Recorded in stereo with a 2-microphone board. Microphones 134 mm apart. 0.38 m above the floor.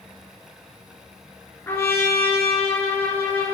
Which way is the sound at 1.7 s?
15° left (ahead or behind).